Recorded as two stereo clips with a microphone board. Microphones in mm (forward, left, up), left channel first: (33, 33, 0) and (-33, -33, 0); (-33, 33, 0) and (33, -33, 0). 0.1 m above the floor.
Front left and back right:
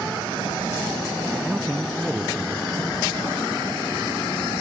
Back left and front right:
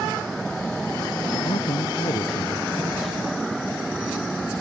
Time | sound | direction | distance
1.3 | a man speaking | 145° left | ?